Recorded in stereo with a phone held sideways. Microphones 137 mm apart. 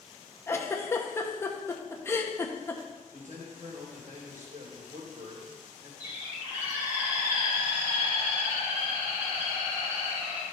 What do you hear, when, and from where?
0.5 s a giggle: 20° left (ahead or behind), 1.0 m
3.1 s a man speaking: 70° right (ahead or behind), 3 m
6.0 s a bird: 15° right (ahead or behind), 4.5 m